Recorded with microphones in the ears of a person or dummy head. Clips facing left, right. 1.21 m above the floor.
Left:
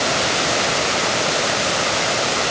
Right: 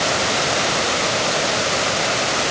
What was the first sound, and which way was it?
Only background noise.